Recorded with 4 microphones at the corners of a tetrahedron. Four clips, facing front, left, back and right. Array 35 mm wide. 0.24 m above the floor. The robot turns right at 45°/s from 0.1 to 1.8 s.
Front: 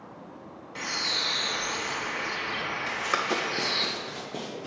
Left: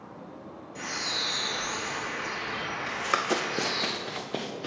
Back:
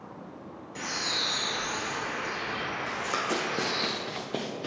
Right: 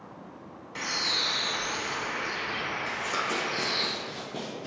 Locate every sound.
0.8 s a bird: 70° right, 1.1 m; by 3.9 s 20° right, 1.1 m
2.9 s running footsteps: 35° left, 0.7 m; by 4.7 s 130° left, 1.2 m